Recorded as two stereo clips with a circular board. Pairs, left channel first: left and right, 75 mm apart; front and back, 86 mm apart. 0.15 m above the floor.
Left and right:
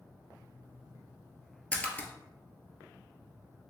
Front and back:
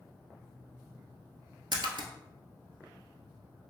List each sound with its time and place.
1.7 s a splash: 160° left, 0.7 m